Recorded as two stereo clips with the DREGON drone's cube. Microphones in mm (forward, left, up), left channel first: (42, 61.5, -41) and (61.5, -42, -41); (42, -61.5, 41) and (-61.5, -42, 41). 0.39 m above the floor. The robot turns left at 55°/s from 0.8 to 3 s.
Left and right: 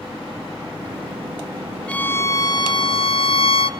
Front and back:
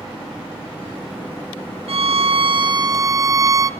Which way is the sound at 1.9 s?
175° left.